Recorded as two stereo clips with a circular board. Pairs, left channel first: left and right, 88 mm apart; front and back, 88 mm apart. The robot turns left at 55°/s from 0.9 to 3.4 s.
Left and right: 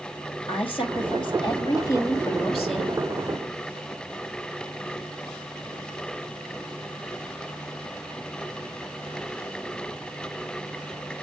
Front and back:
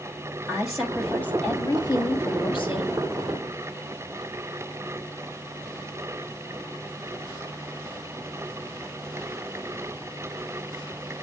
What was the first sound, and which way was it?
A woman speaking, 90° left.